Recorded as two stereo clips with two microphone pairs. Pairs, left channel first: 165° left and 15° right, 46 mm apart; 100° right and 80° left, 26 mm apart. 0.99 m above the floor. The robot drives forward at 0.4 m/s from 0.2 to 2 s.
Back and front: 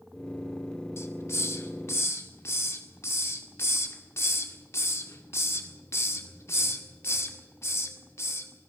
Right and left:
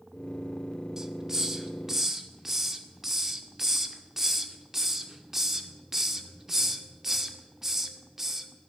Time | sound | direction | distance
1.0 | a hiss | 150° left | 1.6 m